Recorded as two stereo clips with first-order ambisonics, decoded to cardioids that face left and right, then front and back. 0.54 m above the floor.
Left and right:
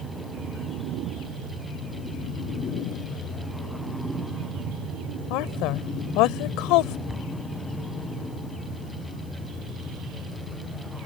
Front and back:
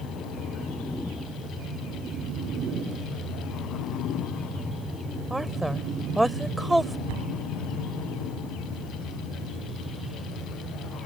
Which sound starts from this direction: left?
A woman speaking, at 5.3 s.